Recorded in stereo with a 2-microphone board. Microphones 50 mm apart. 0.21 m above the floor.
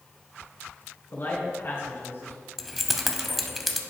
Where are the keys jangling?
Centre (ahead or behind), 0.6 m.